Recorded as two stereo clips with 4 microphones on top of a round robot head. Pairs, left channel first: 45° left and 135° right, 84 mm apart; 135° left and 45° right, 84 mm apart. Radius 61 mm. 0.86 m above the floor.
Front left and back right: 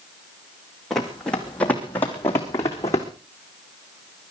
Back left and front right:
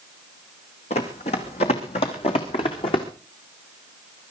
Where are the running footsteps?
130° left, 3 m; by 3.1 s 105° left, 3.5 m.